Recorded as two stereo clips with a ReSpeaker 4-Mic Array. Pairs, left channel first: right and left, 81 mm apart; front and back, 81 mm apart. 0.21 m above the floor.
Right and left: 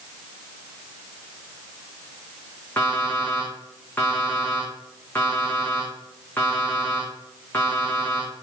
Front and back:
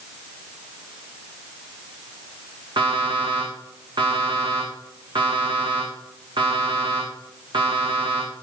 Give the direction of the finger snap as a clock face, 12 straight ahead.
I don't hear a finger snap.